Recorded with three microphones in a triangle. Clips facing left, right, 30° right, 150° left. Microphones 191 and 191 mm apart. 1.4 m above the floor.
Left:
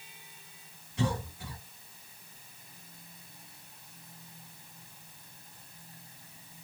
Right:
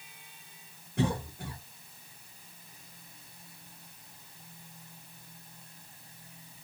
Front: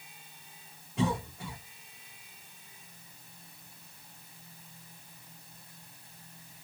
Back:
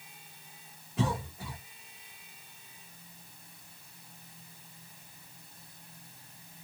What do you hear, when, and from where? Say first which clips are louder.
1.0 s a cough: right 2 dB, front 2 dB; 120° right, 1.1 m